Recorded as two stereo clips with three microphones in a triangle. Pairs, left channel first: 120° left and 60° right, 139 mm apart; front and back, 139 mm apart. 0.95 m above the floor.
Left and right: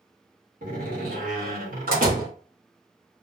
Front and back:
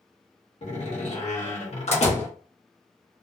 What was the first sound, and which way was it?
A door slam, 45° right.